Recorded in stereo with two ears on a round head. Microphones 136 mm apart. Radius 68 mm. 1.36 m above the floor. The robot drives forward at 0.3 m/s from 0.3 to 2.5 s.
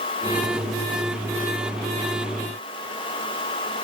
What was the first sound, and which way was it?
Only background noise.